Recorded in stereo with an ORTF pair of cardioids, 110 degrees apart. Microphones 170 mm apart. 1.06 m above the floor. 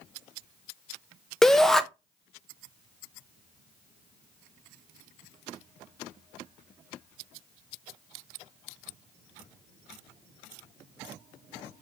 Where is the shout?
5° left, 0.6 m.